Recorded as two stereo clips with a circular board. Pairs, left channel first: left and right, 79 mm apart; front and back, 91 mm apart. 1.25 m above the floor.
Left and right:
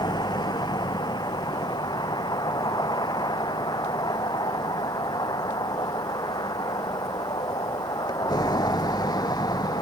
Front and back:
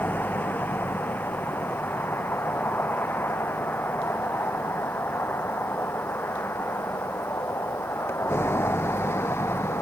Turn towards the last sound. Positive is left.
turn(degrees=60)